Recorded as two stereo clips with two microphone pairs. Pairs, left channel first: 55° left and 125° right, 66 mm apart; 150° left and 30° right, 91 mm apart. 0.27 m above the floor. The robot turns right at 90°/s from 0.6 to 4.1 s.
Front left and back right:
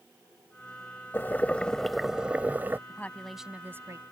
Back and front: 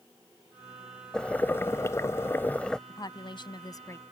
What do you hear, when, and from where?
1.1 s boiling: 75° left; by 2.8 s 135° right
2.9 s a woman speaking: 110° left; by 4.0 s 150° right